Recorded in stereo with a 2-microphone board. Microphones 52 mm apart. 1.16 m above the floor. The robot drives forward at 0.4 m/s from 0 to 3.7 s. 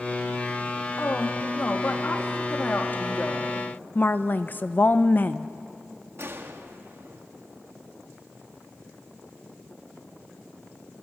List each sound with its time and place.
1.0 s a woman speaking: 45° left (ahead or behind), 2.5 m; by 3.6 s 30° left (ahead or behind), 3 m
4.0 s a woman speaking: 35° left (ahead or behind), 0.8 m
6.2 s a gunshot: 50° right (ahead or behind), 1.6 m